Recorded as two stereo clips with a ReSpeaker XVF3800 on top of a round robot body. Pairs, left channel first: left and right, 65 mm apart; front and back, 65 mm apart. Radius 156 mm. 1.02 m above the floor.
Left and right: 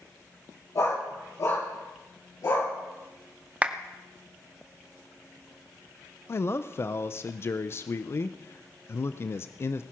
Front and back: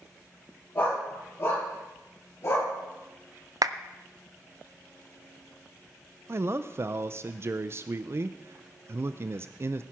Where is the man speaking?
135° left, 0.5 m.